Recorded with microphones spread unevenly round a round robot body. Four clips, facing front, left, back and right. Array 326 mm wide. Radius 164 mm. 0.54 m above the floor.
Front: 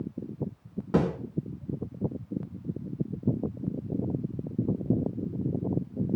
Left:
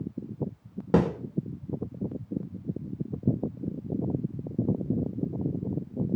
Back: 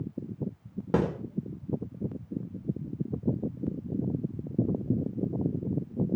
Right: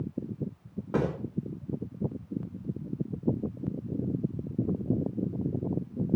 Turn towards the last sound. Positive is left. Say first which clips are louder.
# left 5 dB, front 1 dB
turn(degrees=110)